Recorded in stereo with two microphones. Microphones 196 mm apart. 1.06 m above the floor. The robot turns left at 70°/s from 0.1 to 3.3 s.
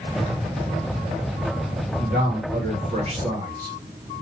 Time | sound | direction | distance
2.0 | a man speaking | 55° right | 0.9 m